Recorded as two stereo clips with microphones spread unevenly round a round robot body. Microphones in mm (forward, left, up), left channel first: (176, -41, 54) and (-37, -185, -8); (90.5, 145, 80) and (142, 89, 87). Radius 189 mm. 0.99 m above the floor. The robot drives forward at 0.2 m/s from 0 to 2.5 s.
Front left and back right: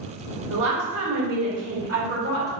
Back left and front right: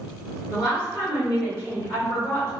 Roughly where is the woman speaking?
Behind right.